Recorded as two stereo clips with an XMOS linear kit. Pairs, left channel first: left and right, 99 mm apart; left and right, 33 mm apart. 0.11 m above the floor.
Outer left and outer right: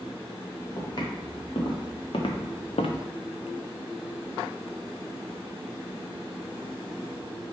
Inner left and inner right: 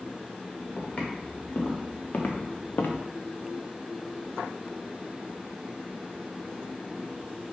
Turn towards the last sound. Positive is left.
turn(degrees=85)